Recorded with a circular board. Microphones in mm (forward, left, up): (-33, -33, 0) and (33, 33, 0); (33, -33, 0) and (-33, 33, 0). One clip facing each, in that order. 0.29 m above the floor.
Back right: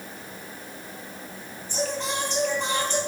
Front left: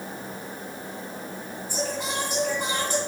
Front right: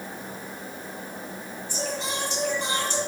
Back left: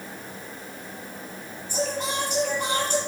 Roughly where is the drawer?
No drawer in this recording.